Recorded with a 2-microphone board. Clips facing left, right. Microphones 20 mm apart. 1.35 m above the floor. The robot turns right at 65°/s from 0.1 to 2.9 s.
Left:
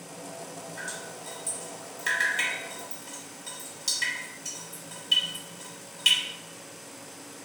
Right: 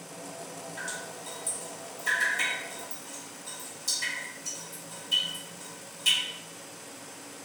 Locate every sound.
0.8 s dripping: 15° right (ahead or behind), 1.3 m; by 6.2 s 40° left (ahead or behind), 1.3 m